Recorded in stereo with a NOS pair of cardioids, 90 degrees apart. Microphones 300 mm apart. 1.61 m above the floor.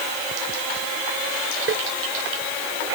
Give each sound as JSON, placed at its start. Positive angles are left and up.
{"t": 1.7, "sound": "tapping", "azimuth_deg": -40}